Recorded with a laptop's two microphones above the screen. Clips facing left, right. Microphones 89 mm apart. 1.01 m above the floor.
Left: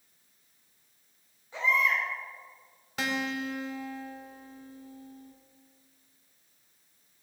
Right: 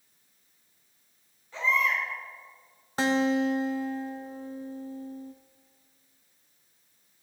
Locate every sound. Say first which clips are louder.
1.5 s a baby crying: even; 20° left (ahead or behind), 4.5 m
3.0 s a guitar: right 8 dB; 35° right (ahead or behind), 0.8 m